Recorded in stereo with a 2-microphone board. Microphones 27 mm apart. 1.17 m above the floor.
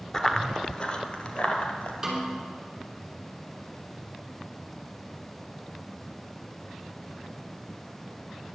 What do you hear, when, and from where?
0.1 s running footsteps: 20° left (ahead or behind), 1.1 m; by 1.9 s 55° left (ahead or behind), 1.8 m
2.0 s a snare drum: 10° right (ahead or behind), 4 m